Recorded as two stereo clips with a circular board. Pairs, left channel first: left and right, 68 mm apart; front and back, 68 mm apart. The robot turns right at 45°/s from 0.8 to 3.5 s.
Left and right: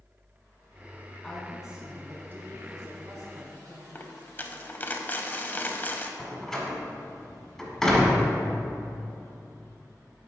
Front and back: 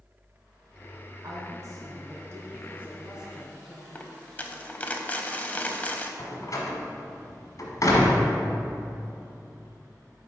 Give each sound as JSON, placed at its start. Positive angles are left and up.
{"t": 1.2, "sound": "a woman speaking", "azimuth_deg": 170, "distance_m": 2.0}
{"t": 4.0, "sound": "a dropped coin", "azimuth_deg": 50, "distance_m": 0.6}
{"t": 6.2, "sound": "a door slam", "azimuth_deg": 5, "distance_m": 1.4}